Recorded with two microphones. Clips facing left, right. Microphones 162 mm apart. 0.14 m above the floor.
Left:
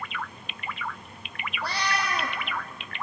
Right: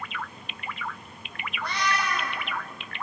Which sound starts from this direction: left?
A cat meowing, at 1.6 s.